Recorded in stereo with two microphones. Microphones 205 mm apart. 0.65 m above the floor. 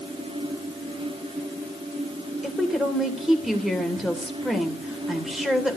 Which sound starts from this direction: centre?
A woman speaking, at 2.4 s.